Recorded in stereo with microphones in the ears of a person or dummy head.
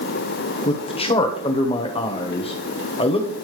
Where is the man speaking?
25° left (ahead or behind), 0.9 m.